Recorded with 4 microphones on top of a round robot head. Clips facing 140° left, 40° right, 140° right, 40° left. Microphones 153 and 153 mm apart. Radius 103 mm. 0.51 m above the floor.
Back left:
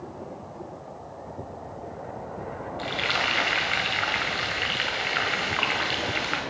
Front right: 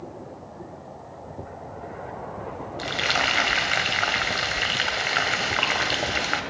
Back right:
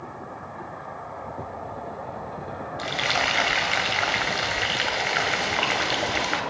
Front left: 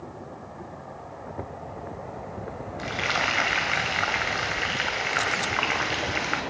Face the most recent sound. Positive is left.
turn(degrees=-80)